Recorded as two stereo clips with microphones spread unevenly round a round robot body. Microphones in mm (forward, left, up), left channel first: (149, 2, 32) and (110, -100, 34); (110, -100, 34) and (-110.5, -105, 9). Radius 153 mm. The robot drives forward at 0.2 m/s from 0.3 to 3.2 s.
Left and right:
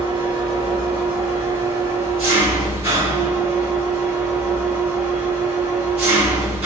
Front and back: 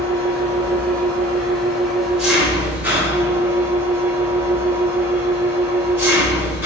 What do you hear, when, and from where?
0.0 s an engine running: 80° right, 1.5 m; by 6.7 s 105° right, 1.5 m